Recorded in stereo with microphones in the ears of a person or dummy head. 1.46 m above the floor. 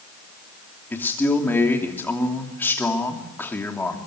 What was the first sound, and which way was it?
A man speaking, 5° left (ahead or behind).